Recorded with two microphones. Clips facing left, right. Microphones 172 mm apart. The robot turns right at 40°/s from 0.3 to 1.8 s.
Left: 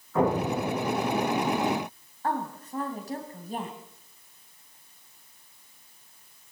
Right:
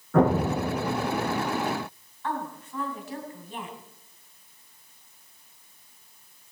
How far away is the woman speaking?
About 2.5 m.